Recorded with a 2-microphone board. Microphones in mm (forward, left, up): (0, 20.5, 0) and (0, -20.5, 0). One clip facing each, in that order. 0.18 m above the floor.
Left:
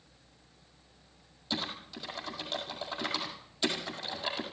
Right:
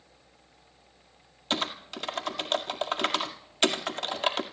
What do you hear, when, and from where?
1.5 s typing on a keyboard: 70° right (ahead or behind), 1.7 m